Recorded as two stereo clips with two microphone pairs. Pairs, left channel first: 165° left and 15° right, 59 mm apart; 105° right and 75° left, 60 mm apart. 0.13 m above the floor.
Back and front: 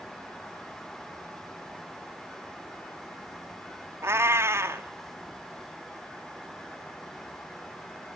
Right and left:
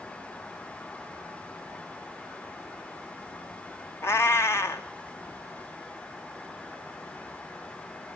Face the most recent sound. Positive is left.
turn(degrees=-60)